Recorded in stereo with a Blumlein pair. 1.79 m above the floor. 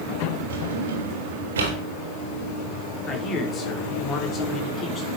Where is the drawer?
60° right, 3.5 m.